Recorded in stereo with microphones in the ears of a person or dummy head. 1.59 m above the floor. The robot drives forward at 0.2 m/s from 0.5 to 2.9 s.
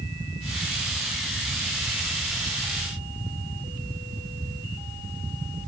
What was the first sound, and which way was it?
Only background noise.